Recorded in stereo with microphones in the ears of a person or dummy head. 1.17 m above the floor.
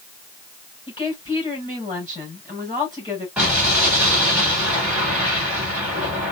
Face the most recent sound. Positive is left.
turn(degrees=-5)  # may be behind; listen again after turning